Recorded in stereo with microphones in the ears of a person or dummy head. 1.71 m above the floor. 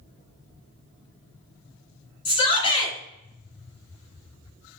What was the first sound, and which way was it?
A shout, 30° left (ahead or behind).